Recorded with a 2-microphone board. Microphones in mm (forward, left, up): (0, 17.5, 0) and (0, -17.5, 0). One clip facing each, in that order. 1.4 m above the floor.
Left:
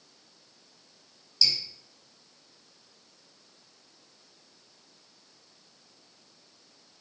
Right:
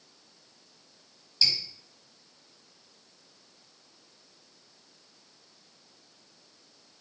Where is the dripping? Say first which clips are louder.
Even; 35° right (ahead or behind), 1.7 m.